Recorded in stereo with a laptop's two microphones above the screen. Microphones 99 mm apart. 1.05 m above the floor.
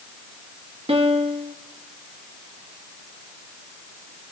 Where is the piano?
80° right, 1.3 m.